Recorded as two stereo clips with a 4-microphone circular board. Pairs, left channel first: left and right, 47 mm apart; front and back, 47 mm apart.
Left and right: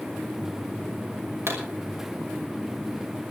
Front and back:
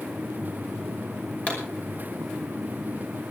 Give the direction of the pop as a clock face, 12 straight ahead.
2 o'clock.